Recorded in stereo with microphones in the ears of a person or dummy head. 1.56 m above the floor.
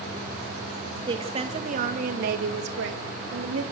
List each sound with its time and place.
1.1 s a woman speaking: 25° right (ahead or behind), 2.5 m; by 3.6 s 90° right, 3 m